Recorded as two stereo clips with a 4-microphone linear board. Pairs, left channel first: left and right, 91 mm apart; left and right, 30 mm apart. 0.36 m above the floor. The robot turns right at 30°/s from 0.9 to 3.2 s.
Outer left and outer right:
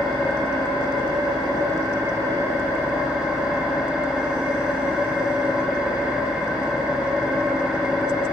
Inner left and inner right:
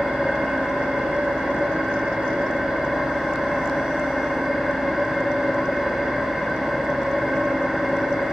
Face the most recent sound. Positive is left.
turn(degrees=-15)